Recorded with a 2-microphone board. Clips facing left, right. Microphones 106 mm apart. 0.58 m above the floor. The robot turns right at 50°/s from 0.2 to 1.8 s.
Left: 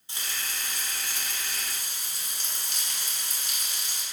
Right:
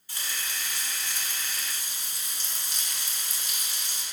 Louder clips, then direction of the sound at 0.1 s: Even; 25° left.